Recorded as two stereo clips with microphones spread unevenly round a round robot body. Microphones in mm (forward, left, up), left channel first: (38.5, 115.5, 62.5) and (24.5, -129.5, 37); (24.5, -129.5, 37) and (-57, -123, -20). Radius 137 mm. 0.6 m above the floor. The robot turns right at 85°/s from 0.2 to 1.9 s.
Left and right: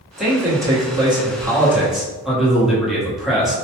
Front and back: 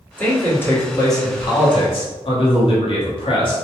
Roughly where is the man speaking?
Behind.